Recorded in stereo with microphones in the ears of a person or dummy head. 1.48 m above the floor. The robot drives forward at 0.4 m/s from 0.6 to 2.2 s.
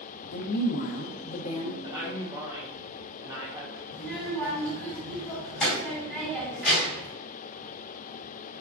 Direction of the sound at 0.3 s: 70° left (ahead or behind).